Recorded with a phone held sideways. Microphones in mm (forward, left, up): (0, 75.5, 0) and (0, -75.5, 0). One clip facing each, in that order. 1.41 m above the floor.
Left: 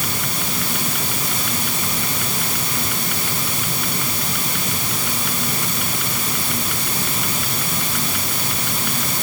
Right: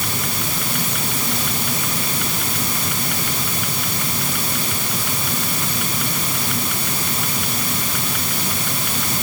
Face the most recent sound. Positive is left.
No sound to turn to.